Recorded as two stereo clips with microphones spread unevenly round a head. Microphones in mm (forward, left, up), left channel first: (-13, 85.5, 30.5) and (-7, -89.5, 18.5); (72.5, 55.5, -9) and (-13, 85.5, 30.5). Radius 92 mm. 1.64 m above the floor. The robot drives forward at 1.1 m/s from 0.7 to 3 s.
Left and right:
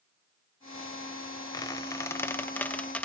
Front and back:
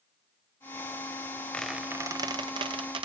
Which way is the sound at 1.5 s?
100° left.